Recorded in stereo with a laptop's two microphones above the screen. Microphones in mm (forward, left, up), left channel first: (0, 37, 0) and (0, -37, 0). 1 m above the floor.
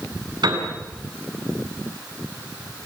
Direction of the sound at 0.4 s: 70° right (ahead or behind).